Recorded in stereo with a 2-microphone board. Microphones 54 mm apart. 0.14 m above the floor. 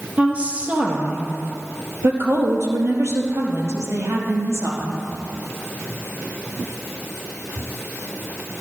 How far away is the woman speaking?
About 4 m.